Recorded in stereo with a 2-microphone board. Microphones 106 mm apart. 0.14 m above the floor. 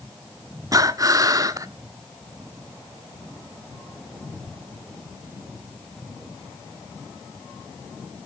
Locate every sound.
0.7 s breathing: 35° right (ahead or behind), 0.5 m